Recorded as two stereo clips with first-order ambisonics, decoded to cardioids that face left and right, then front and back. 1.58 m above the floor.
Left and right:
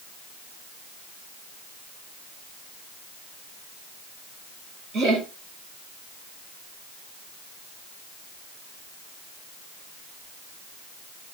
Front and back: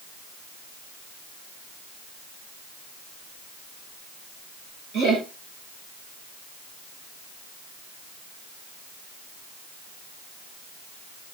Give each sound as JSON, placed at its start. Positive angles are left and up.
{"t": 4.9, "sound": "laughter", "azimuth_deg": -140, "distance_m": 1.5}